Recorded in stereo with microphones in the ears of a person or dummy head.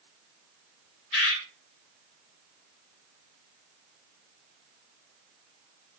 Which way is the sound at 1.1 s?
75° left (ahead or behind).